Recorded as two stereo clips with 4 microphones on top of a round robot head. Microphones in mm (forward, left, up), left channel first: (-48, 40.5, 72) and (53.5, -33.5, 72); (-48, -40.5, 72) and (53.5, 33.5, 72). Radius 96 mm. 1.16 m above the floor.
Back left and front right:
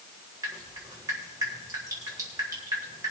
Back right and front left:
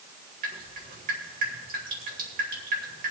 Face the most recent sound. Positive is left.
turn(degrees=30)